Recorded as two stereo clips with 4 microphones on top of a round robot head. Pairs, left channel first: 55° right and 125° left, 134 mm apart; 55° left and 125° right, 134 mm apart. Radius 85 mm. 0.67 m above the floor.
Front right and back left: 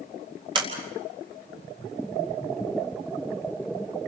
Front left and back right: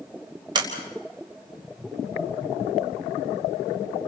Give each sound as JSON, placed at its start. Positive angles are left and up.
{"t": 0.6, "sound": "a sliding door", "azimuth_deg": 180, "distance_m": 4.0}